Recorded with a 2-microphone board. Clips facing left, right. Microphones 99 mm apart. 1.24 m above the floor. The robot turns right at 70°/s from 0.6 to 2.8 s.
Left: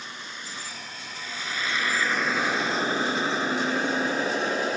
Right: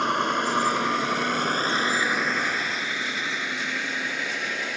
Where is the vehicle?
70° right (ahead or behind); by 4.8 s 35° left (ahead or behind).